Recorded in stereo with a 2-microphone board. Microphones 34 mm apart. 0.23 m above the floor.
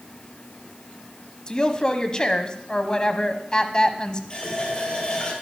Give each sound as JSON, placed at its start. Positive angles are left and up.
{"t": 1.5, "sound": "a woman speaking", "side_deg": 25, "distance_m": 1.1}
{"t": 4.3, "sound": "a running tap", "side_deg": 20, "distance_m": 4.0}